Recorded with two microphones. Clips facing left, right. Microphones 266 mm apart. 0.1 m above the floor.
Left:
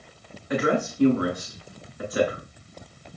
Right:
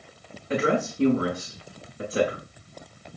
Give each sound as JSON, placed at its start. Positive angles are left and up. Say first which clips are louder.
{"t": 0.5, "sound": "a woman speaking", "louder": "even", "side_deg": -30, "distance_m": 9.5}